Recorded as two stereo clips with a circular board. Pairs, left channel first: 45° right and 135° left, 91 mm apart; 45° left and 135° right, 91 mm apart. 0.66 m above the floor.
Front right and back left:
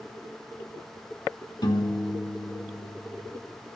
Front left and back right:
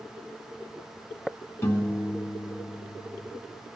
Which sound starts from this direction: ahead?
A piano, at 1.6 s.